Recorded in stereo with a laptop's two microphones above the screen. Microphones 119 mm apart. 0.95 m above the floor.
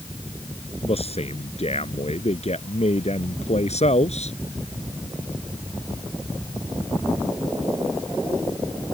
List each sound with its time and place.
0.8 s a man speaking: 60° left (ahead or behind); by 4.3 s 65° left (ahead or behind)